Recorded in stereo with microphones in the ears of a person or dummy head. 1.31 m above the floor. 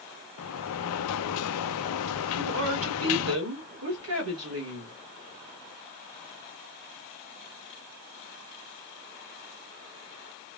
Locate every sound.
0.4 s a sliding door: 85° left, 0.5 m
2.4 s a woman speaking: 80° right, 2.0 m